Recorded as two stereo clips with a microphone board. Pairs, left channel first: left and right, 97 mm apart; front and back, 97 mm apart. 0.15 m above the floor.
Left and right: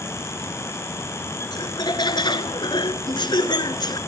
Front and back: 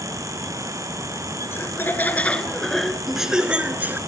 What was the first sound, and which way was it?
Laughter, 60° left.